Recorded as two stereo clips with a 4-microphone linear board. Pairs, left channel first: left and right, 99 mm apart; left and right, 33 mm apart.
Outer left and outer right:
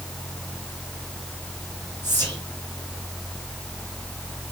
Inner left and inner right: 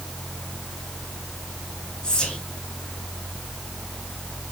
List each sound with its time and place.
2.0 s whispering: 20° left (ahead or behind), 4.5 m